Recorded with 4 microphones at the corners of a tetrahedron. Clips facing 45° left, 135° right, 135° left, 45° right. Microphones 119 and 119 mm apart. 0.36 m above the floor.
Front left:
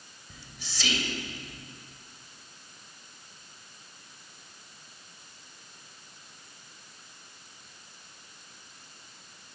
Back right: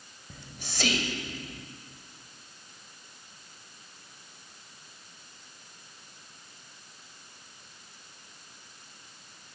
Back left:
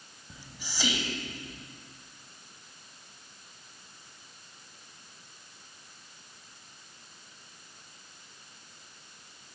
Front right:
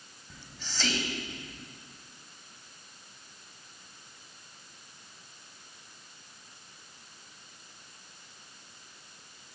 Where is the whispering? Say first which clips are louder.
Back right 3 dB, even; 150° right, 1.6 m.